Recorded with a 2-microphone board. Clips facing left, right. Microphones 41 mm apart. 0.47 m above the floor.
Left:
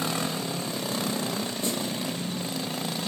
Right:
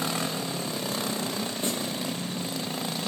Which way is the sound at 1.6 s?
35° right (ahead or behind).